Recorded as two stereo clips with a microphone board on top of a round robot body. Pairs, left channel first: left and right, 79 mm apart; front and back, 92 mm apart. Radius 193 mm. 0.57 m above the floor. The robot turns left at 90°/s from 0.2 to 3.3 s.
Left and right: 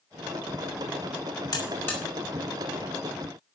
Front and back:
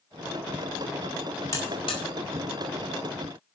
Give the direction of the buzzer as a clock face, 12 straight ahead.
10 o'clock.